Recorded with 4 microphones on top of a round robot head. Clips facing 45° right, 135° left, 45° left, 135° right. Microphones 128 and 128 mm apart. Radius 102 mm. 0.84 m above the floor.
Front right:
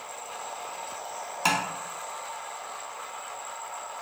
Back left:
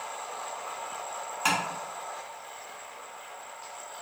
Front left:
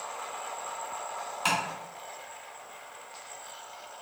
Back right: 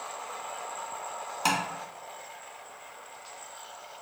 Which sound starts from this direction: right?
Tapping, at 1.4 s.